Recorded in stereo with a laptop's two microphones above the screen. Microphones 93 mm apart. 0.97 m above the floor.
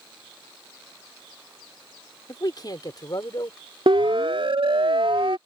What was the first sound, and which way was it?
A man speaking, 45° left (ahead or behind).